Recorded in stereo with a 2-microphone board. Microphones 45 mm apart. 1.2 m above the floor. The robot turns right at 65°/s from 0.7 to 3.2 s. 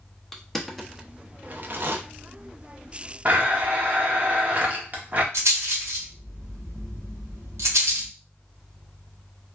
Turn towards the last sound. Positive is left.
turn(degrees=-80)